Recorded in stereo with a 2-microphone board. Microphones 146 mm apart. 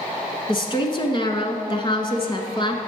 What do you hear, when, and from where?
0.5 s a woman speaking: 35° left (ahead or behind), 1.2 m